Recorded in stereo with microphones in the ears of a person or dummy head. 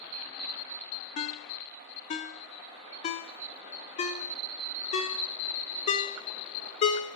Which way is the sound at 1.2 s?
40° left (ahead or behind).